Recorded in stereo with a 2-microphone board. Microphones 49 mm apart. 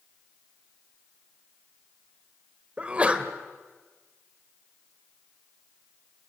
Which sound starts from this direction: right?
A sneeze, at 2.8 s.